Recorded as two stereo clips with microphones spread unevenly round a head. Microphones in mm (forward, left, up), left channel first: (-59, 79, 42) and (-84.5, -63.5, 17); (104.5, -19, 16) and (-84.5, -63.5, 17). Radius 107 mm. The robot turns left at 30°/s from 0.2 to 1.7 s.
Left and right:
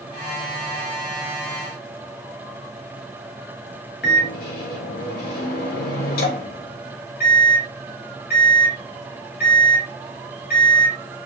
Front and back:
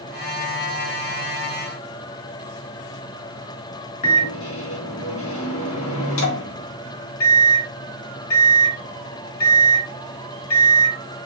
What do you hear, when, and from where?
4.0 s a microwave: 40° left, 1.2 m